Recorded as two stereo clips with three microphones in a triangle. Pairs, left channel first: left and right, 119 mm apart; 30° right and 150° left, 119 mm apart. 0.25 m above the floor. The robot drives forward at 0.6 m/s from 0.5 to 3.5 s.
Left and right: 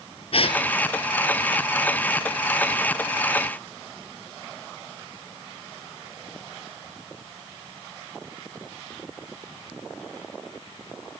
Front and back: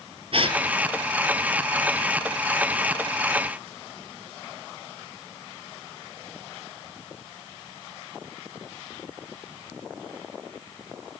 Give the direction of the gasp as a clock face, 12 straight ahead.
8 o'clock.